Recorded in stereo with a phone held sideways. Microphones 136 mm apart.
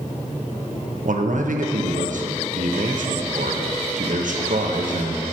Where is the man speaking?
70° right (ahead or behind), 0.8 m.